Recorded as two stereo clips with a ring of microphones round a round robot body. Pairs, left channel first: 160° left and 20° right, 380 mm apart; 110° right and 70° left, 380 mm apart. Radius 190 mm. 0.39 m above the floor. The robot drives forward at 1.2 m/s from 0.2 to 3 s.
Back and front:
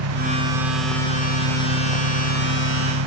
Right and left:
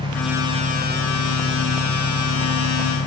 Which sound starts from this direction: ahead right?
An engine running, at 0.0 s.